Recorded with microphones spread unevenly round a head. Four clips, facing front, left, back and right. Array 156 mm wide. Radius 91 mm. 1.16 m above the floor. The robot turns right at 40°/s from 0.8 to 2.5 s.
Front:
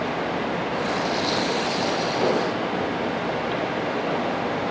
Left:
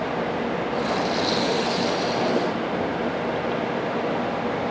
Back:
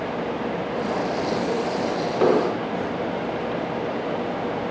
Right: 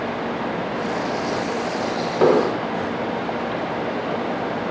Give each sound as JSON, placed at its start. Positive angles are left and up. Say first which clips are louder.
{"t": 2.2, "sound": "an explosion", "louder": "right 6 dB, back 6 dB", "azimuth_deg": -95}